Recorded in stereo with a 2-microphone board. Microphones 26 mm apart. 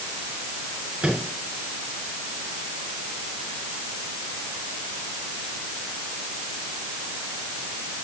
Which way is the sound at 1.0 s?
45° right (ahead or behind).